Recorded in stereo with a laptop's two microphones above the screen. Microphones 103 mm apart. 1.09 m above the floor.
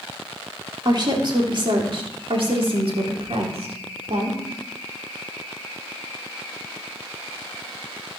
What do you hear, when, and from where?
0.8 s a woman speaking: 45° right (ahead or behind), 3.5 m; by 4.4 s 80° right, 3.5 m